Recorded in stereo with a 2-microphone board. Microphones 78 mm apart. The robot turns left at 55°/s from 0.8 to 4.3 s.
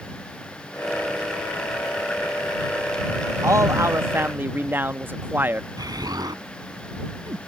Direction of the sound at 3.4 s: 90° right.